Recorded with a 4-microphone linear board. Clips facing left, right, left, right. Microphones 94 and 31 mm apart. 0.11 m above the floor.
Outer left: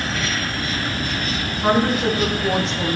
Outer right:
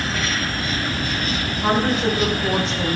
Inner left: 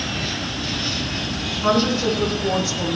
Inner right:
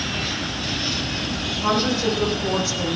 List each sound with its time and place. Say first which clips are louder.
1.6 s a woman speaking: outer left 2 dB, inner left 2 dB; 5° left (ahead or behind), 6 m; by 3.0 s centre (ahead or behind), 6 m